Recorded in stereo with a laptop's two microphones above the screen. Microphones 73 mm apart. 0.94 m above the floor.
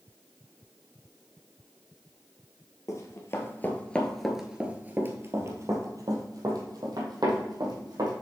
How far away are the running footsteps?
About 1.5 m.